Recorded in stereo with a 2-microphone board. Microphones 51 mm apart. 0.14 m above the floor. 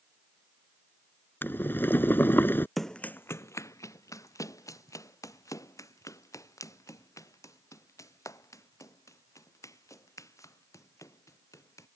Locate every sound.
1.4 s boiling: 40° left (ahead or behind)
2.8 s running footsteps: centre (ahead or behind); by 11.9 s 75° left (ahead or behind)